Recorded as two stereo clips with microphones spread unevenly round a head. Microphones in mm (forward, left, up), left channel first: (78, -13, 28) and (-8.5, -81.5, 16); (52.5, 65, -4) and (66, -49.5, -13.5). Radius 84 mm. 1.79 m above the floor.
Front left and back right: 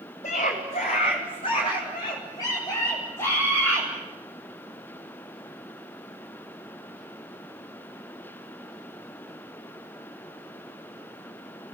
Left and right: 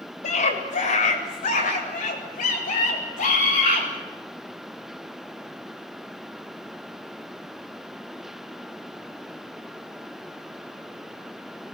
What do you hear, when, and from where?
0.2 s a scream: 85° left, 8 m; by 3.9 s 120° left, 10 m